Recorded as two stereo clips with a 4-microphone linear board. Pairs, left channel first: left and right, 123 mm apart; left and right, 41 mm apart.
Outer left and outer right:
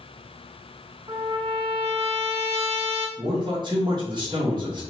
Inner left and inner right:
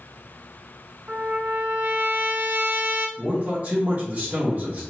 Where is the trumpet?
50° right (ahead or behind), 0.6 m.